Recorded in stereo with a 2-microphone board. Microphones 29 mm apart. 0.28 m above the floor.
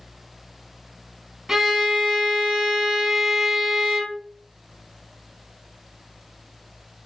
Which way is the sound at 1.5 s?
10° right (ahead or behind).